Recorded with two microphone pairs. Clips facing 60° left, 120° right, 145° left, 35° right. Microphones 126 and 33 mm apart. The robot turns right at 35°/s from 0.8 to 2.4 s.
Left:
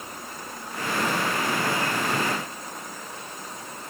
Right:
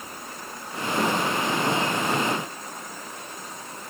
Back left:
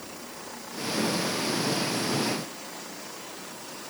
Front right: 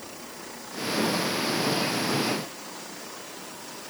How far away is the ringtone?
I don't hear a ringtone.